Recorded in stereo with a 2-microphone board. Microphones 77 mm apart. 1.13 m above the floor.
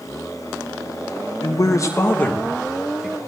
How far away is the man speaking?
About 1.6 m.